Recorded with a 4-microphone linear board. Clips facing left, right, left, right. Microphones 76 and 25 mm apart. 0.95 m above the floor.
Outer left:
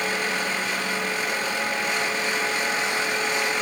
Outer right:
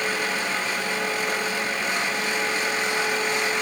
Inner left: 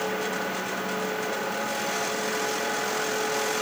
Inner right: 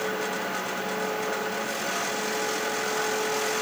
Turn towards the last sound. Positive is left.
No sound to turn to.